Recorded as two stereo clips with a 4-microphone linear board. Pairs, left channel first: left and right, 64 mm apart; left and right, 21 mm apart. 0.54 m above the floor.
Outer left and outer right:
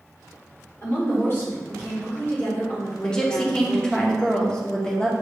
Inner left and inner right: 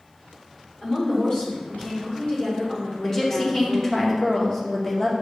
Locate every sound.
0.8 s a woman speaking: 40° left (ahead or behind), 1.6 m
3.0 s a woman speaking: 15° left (ahead or behind), 0.9 m